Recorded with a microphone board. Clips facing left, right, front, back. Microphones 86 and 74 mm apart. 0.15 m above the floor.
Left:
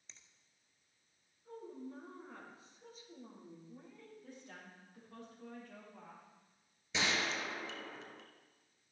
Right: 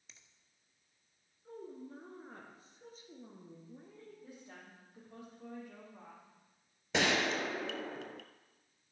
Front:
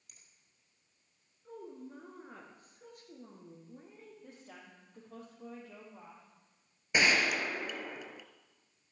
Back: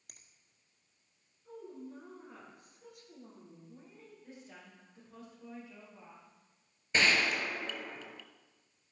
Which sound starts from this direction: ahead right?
A woman speaking, at 1.4 s.